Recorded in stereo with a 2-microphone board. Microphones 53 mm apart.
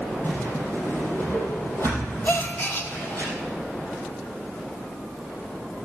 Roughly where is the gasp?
Left.